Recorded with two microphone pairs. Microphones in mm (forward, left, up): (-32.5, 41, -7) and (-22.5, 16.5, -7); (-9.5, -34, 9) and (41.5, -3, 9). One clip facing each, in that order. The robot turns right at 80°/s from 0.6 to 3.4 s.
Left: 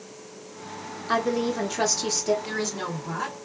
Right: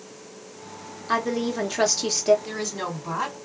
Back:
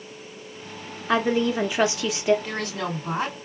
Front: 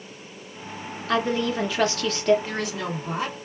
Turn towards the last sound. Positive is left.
turn(degrees=-95)